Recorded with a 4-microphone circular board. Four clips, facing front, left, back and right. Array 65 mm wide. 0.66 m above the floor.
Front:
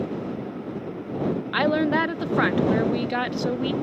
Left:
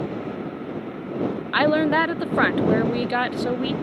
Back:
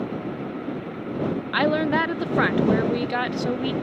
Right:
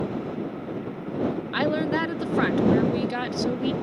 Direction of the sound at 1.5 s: 100° left.